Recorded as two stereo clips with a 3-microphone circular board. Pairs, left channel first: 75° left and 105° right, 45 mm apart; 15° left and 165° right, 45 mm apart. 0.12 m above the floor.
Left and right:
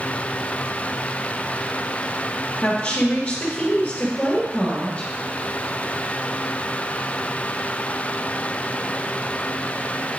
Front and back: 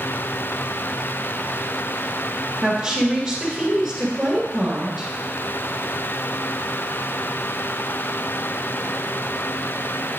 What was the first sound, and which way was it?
A woman speaking, 135° left.